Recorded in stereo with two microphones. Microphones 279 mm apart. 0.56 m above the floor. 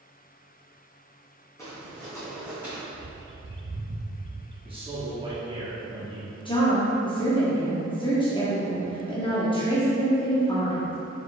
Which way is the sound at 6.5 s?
20° left (ahead or behind).